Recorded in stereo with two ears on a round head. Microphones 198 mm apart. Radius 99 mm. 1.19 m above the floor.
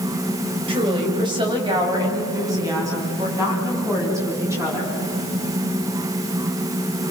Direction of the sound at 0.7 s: 25° right (ahead or behind).